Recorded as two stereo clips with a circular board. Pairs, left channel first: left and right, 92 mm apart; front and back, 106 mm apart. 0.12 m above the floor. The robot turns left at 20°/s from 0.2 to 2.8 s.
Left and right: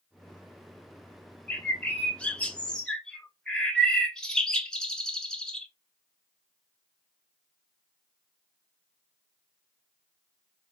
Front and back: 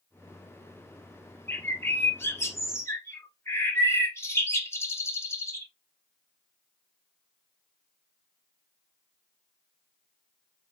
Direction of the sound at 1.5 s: 45° left.